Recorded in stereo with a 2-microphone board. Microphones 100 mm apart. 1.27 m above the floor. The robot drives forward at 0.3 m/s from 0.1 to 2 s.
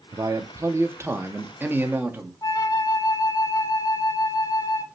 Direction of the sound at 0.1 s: 35° right (ahead or behind).